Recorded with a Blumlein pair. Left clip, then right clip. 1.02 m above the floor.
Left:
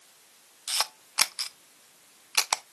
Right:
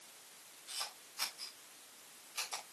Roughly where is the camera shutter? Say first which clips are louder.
Left 14 dB; ahead left.